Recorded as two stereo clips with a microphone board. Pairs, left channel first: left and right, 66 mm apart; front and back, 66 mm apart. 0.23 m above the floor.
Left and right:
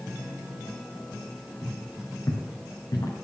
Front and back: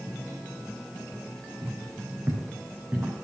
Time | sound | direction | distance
1.6 | footsteps | 140° left | 3.5 m